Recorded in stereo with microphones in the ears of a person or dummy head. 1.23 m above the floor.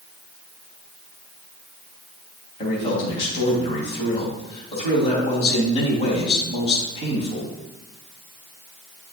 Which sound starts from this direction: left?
A man speaking, at 2.6 s.